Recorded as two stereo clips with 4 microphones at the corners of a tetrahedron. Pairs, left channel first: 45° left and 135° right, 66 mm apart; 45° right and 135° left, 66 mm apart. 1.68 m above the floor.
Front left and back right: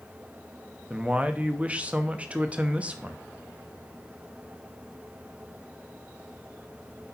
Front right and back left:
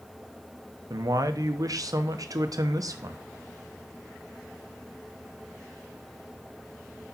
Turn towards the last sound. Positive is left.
turn(degrees=155)